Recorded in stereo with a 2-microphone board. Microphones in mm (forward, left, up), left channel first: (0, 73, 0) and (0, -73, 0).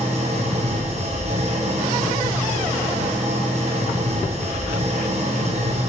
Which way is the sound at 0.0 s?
50° right (ahead or behind).